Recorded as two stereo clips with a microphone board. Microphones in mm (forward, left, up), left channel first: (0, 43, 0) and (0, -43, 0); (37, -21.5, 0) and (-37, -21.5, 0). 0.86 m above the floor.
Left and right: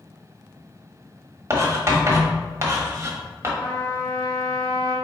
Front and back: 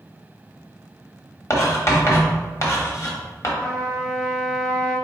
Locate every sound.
1.5 s writing: 40° right, 1.0 m
3.6 s a trumpet: 75° left, 1.2 m